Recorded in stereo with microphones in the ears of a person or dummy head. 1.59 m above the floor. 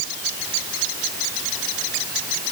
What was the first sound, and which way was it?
Only background noise.